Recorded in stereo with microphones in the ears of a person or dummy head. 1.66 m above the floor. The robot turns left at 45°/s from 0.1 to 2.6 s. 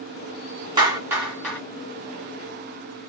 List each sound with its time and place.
0.8 s a clap: 25° right (ahead or behind), 1.7 m; by 1.6 s 10° left (ahead or behind), 1.7 m